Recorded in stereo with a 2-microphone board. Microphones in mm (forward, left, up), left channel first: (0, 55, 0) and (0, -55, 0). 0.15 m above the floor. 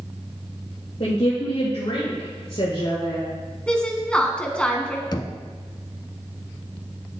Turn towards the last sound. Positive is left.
turn(degrees=40)  # may be behind; listen again after turning